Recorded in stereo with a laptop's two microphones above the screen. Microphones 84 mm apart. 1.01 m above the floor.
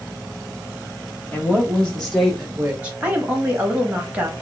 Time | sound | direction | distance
1.3 | a woman speaking | 20° left (ahead or behind) | 1.4 m
3.0 | a woman speaking | 15° right (ahead or behind) | 1.6 m